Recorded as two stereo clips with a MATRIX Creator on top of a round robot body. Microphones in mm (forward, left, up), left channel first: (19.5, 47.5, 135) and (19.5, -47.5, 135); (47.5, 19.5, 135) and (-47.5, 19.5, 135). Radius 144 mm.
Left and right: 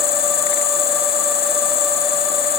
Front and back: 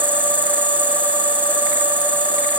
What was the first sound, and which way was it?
An insect, 110° left.